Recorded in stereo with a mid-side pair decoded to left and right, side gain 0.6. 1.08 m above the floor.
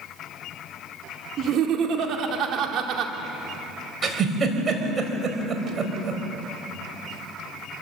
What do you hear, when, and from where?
1.4 s laughter: 55° right, 2.5 m
4.0 s a giggle: 35° right, 3.5 m